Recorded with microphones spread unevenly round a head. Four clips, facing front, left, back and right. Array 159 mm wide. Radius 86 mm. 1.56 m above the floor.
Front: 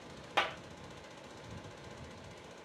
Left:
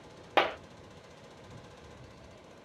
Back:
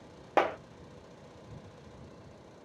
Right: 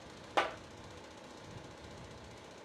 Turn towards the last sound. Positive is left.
turn(degrees=150)